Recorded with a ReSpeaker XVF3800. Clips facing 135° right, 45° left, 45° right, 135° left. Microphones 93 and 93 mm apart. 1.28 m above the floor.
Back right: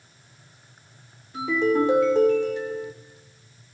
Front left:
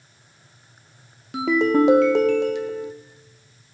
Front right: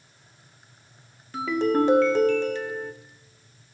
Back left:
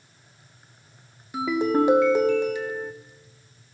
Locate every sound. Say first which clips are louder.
1.3 s a ringtone: front left 3 dB, back left 1 dB; 60° left, 0.8 m